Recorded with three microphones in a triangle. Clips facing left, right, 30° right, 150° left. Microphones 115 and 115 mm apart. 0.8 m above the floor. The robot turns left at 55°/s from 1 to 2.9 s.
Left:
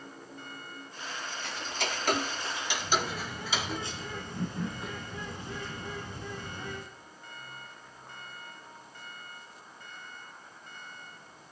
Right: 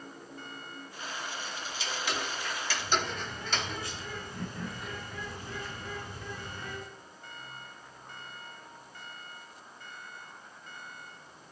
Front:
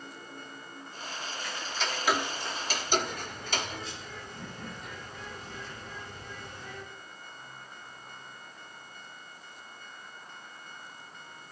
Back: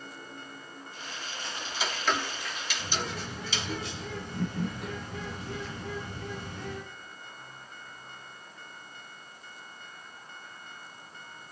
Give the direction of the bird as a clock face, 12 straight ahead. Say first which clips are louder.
Left 1 dB, front 4 dB; 7 o'clock.